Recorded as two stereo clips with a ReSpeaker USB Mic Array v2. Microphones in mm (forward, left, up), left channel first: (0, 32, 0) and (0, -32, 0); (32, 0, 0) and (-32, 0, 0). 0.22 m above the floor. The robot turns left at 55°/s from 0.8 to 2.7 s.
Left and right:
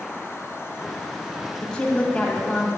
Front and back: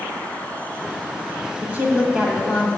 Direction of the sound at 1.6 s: 155° left.